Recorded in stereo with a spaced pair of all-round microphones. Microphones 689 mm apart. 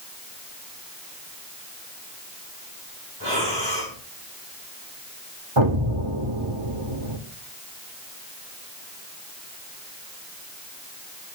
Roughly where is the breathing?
Left.